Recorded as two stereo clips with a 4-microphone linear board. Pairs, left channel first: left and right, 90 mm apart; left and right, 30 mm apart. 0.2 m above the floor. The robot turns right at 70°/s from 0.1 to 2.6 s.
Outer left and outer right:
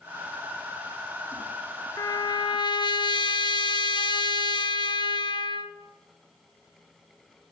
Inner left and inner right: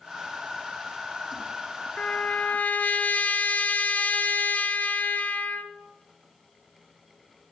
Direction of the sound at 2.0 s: 45° left.